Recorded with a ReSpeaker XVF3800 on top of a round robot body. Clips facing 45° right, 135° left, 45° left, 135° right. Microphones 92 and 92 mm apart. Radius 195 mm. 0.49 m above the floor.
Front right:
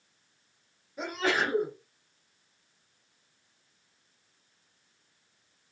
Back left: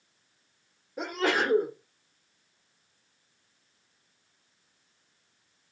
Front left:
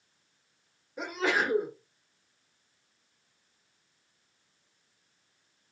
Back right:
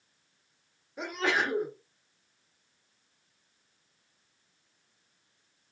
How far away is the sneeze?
About 1.7 m.